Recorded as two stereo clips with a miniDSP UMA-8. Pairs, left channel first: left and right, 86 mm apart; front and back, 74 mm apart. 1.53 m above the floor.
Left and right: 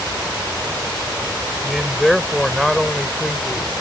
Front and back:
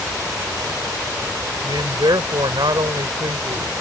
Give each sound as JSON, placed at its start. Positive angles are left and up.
{"t": 1.6, "sound": "a man speaking", "azimuth_deg": 180}